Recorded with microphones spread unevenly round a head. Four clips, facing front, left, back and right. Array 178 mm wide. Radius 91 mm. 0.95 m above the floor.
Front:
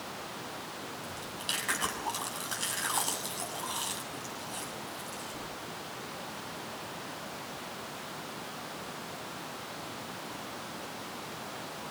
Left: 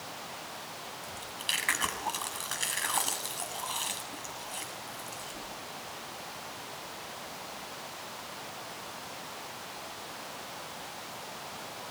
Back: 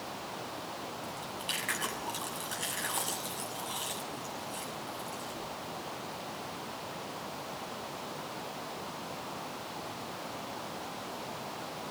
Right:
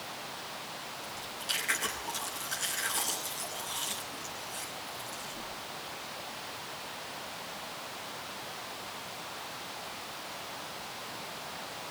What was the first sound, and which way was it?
Chewing, 50° left.